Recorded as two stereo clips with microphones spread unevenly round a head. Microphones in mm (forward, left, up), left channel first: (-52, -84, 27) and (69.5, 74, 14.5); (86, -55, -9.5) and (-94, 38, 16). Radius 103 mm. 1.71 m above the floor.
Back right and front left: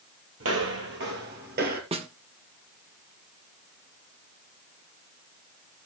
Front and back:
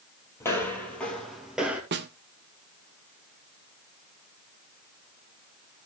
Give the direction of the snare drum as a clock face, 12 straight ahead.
8 o'clock.